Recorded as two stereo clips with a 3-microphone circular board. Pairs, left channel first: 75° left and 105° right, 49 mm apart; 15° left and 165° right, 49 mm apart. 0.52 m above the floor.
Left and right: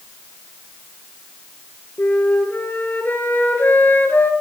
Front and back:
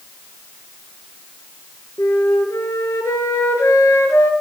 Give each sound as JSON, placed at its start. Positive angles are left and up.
{"t": 2.0, "sound": "a flute", "azimuth_deg": 30, "distance_m": 3.0}